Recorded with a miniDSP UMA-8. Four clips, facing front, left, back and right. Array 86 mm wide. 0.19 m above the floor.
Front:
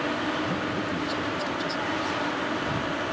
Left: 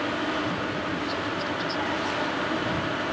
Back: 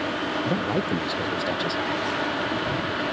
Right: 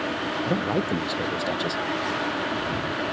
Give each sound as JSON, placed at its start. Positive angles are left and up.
{"t": 0.5, "sound": "a man speaking", "azimuth_deg": -130}